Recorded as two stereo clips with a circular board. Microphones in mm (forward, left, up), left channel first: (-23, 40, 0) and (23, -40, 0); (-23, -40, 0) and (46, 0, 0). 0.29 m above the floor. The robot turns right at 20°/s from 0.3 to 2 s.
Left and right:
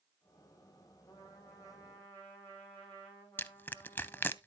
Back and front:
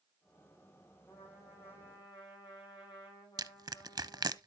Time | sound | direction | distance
1.1 | a trumpet | 165° left | 5.5 m
3.4 | crushing | 55° left | 0.5 m